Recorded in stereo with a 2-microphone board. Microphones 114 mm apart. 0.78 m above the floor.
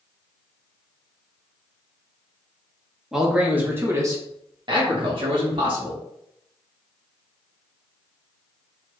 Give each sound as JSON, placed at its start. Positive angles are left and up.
{"t": 3.1, "sound": "a man speaking", "side_deg": -5, "distance_m": 1.1}